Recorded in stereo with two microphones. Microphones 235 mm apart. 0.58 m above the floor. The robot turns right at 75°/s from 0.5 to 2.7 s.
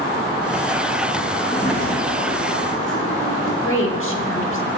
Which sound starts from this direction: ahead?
A sliding door, at 1.4 s.